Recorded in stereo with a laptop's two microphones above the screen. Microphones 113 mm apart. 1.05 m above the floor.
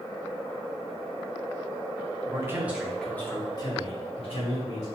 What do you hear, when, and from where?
2.2 s a man speaking: 30° right (ahead or behind), 0.9 m; by 4.8 s 65° left (ahead or behind), 1.5 m